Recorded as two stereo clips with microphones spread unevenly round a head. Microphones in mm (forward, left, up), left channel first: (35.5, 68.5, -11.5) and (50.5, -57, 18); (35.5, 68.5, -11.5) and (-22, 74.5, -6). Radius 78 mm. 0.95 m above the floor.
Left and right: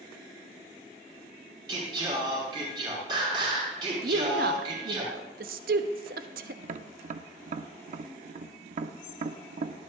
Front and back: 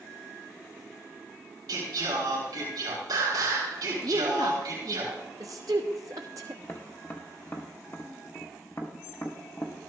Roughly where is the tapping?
Right.